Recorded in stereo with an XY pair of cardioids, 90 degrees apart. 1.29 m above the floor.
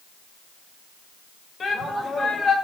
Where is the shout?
45° left, 5 m.